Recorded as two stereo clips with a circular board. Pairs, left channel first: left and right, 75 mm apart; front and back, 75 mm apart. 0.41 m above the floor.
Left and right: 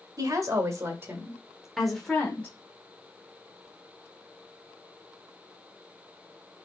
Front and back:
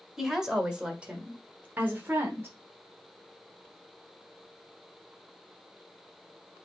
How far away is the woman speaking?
About 1.8 m.